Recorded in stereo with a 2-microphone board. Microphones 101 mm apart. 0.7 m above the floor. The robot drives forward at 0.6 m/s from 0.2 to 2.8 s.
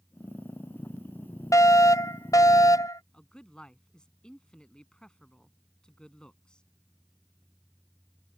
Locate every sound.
1.5 s a fire alarm: 35° left (ahead or behind)
3.1 s a man speaking: 10° left (ahead or behind)